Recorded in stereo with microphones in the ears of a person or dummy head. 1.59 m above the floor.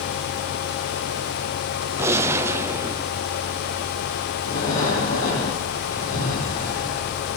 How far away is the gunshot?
About 0.7 m.